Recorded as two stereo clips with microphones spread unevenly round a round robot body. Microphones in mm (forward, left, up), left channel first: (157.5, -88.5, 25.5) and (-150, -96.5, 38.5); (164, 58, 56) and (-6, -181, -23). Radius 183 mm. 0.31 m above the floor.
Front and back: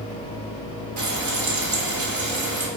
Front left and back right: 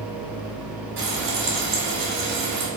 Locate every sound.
1.0 s frying: 145° right, 2.5 m